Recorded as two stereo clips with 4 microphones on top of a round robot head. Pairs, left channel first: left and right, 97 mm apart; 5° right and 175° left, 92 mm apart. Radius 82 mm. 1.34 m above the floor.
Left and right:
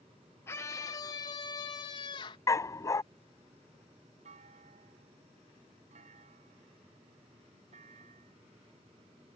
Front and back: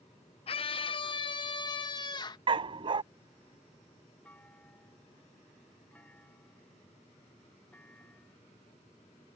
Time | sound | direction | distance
0.5 | a scream | 20° left | ?
2.5 | a dog barking | 150° left | ?
4.2 | a clunk | 85° right | ?